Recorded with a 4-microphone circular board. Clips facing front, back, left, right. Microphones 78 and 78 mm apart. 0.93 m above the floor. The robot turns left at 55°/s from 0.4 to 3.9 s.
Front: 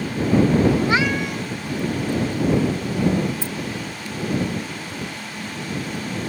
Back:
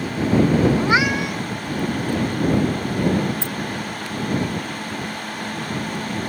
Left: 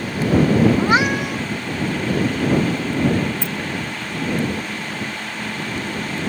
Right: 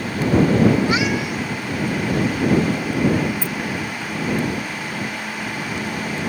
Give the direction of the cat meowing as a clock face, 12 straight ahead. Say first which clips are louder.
Back 1 dB, left 2 dB; 8 o'clock.